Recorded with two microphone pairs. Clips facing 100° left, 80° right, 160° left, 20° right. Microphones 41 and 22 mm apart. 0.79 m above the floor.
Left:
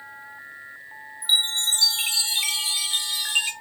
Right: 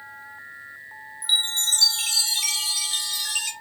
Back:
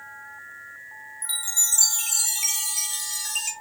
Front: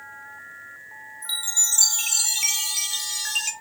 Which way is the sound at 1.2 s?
40° left.